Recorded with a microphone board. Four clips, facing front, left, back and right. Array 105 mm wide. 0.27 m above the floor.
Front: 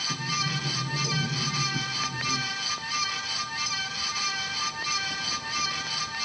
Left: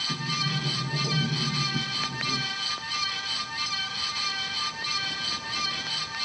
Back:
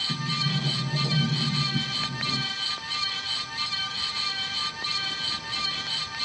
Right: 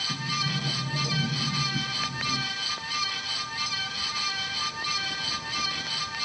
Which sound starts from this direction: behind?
A sliding door, at 0.1 s.